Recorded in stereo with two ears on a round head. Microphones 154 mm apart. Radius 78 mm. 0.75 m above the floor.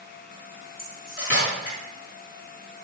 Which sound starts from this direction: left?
Cutlery clinking, at 0.8 s.